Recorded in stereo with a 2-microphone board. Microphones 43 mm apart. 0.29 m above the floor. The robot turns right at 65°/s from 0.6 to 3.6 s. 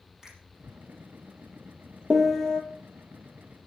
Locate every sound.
0.2 s a finger snap: 10° right (ahead or behind), 7 m
2.1 s a piano: 10° right, 1.2 m; by 2.6 s 20° left, 1.2 m